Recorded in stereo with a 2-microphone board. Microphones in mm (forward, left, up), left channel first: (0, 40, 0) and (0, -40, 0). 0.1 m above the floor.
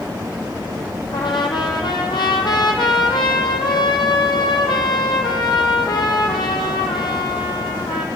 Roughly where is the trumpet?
Left.